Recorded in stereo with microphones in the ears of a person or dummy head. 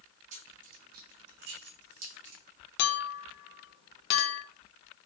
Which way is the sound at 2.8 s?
65° left (ahead or behind).